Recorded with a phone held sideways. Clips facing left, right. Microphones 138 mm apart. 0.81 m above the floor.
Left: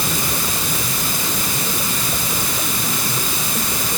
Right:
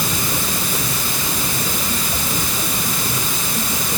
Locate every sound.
Only background noise.